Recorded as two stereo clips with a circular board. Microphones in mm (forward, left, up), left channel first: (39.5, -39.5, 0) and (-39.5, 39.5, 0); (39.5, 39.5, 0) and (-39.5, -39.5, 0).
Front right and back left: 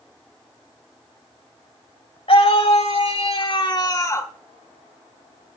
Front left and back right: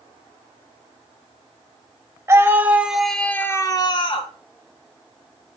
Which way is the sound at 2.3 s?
70° right.